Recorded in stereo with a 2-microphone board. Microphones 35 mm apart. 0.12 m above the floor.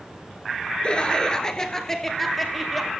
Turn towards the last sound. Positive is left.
turn(degrees=-5)  # may be behind; listen again after turning